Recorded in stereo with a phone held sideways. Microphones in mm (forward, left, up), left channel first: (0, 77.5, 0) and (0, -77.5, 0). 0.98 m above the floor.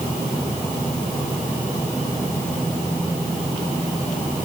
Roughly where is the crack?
No crack in this recording.